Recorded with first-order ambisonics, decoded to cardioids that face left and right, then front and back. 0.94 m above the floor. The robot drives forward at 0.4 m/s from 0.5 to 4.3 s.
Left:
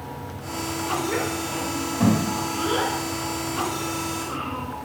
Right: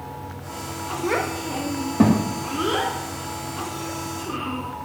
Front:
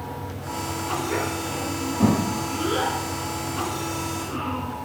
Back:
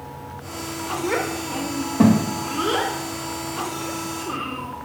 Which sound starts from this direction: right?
A child speaking, at 1.0 s.